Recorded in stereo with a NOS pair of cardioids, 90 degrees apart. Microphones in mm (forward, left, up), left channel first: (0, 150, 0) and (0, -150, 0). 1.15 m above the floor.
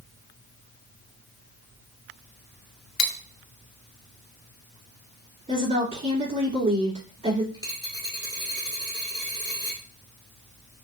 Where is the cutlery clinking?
65° left, 0.8 m.